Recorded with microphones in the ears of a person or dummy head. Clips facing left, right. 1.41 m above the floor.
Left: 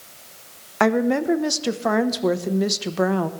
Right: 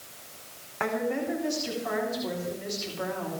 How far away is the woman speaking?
About 1.0 m.